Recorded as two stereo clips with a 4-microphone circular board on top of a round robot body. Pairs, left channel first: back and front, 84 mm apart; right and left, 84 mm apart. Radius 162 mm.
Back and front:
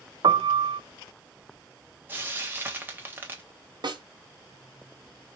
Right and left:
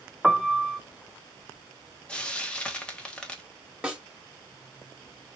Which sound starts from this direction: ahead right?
Frying, at 2.1 s.